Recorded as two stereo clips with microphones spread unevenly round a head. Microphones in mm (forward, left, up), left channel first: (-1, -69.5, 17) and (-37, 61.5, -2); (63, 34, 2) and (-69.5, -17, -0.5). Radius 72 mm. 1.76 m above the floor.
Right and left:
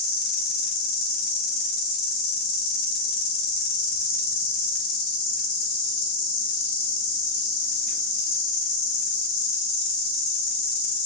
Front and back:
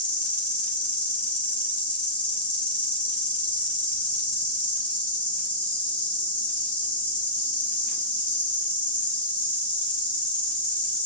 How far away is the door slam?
I don't hear a door slam.